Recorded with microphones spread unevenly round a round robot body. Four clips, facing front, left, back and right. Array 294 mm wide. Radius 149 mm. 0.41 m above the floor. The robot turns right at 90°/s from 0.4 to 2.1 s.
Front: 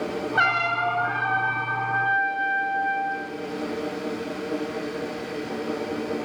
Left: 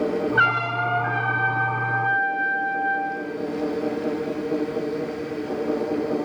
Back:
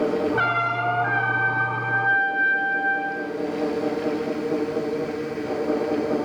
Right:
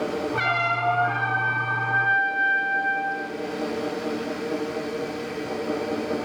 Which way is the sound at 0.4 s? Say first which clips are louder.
Left 1 dB, even; 30° left.